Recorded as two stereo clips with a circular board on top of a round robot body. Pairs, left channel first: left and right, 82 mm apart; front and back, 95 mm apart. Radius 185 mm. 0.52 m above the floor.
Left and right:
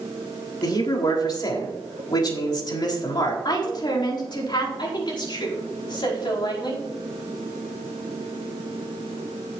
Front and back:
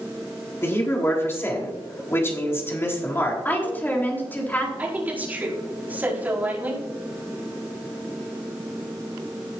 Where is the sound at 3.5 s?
70° left, 3.5 m.